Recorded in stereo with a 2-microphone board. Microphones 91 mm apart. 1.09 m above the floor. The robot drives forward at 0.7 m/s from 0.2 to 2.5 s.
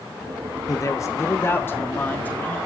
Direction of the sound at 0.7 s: 40° left (ahead or behind).